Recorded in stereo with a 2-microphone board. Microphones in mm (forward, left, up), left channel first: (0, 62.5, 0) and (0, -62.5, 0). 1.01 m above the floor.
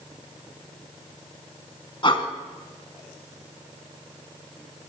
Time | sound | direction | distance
2.0 | breathing | 40° left (ahead or behind) | 1.8 m